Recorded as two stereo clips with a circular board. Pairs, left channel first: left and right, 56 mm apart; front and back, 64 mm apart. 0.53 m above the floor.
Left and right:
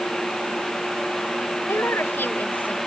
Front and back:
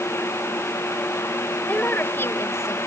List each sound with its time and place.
1.7 s a woman speaking: 60° left; by 2.9 s 30° left